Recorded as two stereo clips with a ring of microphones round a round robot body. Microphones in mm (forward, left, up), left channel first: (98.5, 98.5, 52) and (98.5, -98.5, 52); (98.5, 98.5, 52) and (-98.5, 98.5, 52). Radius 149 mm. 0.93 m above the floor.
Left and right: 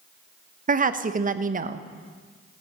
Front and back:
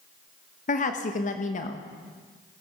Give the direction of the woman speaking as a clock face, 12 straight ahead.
2 o'clock.